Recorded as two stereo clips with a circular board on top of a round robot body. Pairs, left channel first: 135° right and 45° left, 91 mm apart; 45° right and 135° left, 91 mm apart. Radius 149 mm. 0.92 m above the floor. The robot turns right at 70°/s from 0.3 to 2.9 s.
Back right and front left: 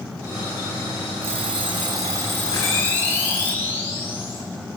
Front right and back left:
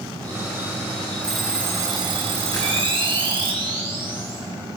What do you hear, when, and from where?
1.2 s an alarm clock: 35° left, 2.5 m; by 3.5 s 150° left, 2.5 m
2.5 s a camera shutter: 90° right, 8 m; by 4.4 s 65° right, 8 m